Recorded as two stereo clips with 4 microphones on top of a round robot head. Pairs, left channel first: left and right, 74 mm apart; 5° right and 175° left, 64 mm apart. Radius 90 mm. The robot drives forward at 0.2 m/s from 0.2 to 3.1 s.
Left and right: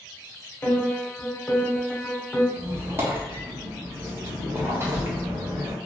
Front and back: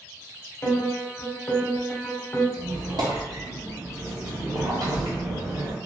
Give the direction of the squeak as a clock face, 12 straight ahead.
5 o'clock.